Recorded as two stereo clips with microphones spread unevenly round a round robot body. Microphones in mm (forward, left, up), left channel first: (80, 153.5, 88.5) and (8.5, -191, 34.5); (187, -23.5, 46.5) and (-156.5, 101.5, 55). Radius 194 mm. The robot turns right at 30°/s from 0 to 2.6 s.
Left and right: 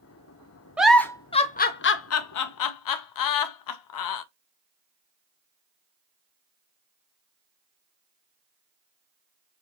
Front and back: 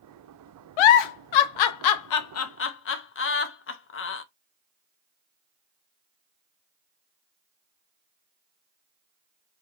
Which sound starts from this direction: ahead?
A giggle, at 0.8 s.